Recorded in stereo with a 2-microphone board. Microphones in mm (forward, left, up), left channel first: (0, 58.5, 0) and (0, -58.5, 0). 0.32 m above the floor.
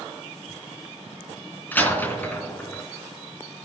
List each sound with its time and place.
1.7 s a door slam: 15° left (ahead or behind), 3 m